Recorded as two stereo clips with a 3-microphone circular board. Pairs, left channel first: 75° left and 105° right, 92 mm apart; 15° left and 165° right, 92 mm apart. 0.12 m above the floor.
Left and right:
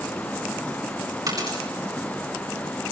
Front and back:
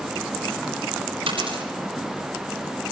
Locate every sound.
1.3 s a dropped coin: 145° right, 9 m